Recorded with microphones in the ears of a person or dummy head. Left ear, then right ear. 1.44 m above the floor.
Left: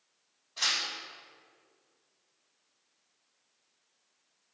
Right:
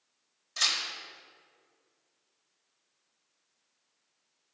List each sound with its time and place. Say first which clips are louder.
0.6 s tearing paper: right 1 dB; 65° right (ahead or behind), 2 m